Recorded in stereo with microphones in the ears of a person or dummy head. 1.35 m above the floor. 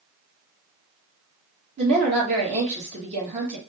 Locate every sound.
1.8 s a woman speaking: 35° right (ahead or behind), 1.6 m